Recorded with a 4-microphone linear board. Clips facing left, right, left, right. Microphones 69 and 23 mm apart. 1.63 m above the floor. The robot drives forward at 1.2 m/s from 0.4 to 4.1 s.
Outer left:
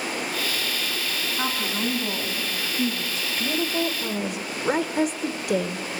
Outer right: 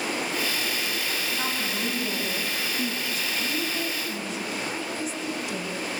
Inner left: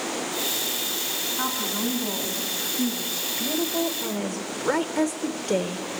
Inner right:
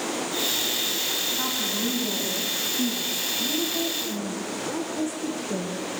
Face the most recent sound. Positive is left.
turn(degrees=55)  # may be behind; listen again after turning